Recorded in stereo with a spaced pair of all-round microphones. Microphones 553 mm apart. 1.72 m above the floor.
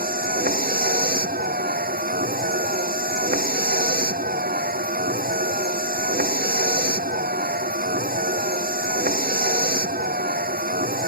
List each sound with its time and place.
0.0 s a vehicle: 15° right (ahead or behind)